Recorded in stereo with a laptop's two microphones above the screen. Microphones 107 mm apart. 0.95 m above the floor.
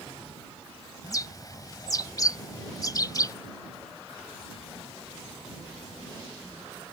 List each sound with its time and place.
1.0 s a bird: 35° left (ahead or behind)